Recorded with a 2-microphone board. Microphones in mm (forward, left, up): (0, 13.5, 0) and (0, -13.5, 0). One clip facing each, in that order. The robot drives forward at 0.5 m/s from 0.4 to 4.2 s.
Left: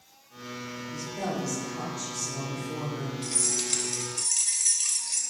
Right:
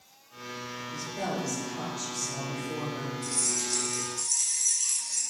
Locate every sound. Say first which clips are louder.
0.8 s a woman speaking: even; 10° right (ahead or behind), 2 m; by 3.1 s 5° right (ahead or behind), 3 m
3.2 s keys jangling: left 2 dB; 65° left (ahead or behind), 1.3 m; by 5.2 s 75° left (ahead or behind), 1.2 m